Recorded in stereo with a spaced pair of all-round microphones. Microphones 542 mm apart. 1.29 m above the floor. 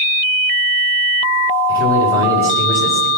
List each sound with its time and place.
1.7 s a man speaking: 25° right (ahead or behind), 5 m